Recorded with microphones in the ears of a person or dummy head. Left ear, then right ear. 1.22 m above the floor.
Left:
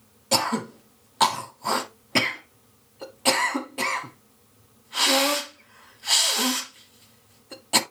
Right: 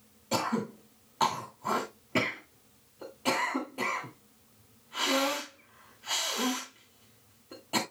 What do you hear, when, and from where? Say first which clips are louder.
0.3 s throat clearing: left 7 dB; 25° left (ahead or behind), 1.6 m